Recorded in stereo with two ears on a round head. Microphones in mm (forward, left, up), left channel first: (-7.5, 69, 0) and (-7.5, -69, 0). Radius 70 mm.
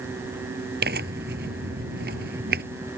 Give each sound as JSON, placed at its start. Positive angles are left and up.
{"t": 0.8, "sound": "tearing paper", "side_deg": -65}